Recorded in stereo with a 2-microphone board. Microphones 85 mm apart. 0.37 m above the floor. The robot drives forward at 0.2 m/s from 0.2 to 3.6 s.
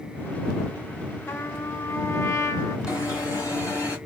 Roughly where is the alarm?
Left.